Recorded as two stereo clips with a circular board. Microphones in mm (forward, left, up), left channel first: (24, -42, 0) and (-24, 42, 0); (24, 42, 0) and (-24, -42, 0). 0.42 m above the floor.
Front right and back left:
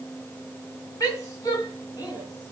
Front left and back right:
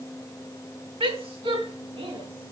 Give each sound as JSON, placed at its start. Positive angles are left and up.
{"t": 1.0, "sound": "a woman speaking", "azimuth_deg": -115, "distance_m": 4.0}